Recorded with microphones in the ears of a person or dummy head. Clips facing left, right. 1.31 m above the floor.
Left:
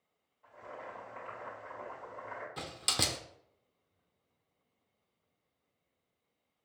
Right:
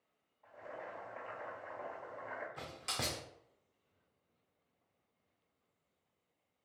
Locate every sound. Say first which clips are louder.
0.4 s boiling: left 1 dB; 10° left (ahead or behind), 2 m
2.6 s a door slam: left 5 dB; 45° left (ahead or behind), 0.6 m